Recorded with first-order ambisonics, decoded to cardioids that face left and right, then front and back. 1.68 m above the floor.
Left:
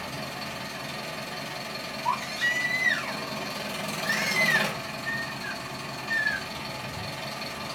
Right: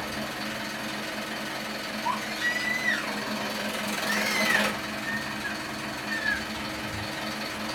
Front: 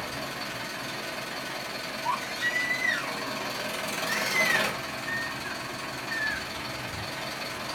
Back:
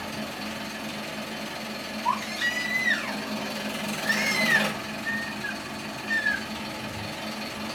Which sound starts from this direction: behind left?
A baby crying, at 2.0 s.